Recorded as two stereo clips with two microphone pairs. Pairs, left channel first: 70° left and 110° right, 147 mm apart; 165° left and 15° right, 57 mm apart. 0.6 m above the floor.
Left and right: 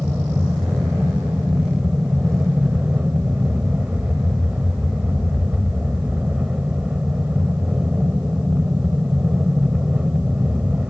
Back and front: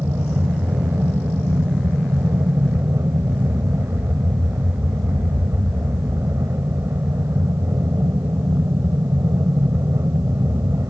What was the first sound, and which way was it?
An aircraft, 30° right.